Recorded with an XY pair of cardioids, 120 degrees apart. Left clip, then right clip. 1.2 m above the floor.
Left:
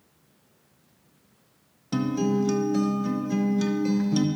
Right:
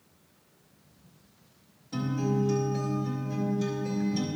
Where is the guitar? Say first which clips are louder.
Left 5 dB; 70° left, 0.7 m.